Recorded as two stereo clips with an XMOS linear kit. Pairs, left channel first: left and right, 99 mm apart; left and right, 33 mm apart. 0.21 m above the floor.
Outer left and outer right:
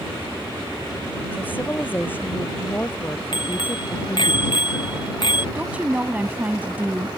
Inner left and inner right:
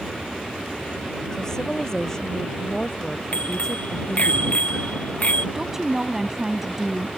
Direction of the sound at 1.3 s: 20° left (ahead or behind).